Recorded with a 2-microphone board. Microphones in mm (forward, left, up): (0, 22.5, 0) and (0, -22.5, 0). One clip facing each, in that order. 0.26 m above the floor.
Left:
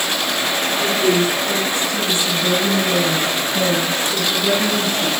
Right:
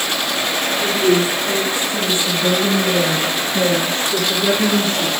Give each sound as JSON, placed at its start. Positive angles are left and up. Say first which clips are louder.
{"t": 0.8, "sound": "a woman speaking", "louder": "right 1 dB", "side_deg": -10, "distance_m": 3.5}